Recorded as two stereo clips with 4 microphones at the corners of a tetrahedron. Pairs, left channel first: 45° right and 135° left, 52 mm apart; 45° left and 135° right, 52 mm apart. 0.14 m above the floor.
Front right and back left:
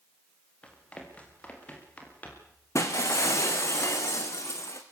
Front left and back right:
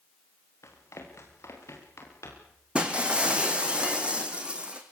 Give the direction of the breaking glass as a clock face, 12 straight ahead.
2 o'clock.